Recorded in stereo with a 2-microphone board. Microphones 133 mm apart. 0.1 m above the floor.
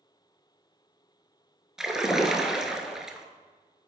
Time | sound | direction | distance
1.8 | a splash | 5° right (ahead or behind) | 0.6 m